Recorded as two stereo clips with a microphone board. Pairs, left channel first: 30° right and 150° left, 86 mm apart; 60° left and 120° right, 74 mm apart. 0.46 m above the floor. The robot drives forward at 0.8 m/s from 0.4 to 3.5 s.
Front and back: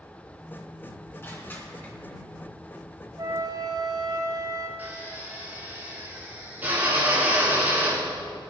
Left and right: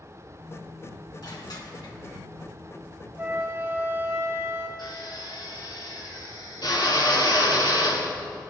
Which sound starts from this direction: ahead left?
Crushing, at 1.2 s.